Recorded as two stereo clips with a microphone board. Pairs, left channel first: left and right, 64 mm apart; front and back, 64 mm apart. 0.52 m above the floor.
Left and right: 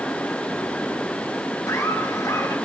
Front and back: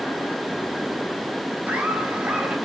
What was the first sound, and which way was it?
Laughter, 120° left.